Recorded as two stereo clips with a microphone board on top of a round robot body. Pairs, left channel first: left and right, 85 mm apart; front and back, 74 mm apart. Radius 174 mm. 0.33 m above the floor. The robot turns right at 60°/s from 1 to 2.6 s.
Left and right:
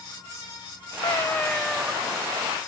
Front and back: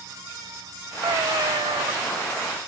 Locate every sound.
1.0 s a cat meowing: 135° left; by 1.9 s 170° right